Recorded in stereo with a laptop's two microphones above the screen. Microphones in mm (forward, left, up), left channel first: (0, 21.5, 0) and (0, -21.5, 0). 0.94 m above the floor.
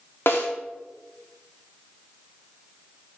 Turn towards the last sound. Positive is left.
turn(degrees=60)  # may be behind; listen again after turning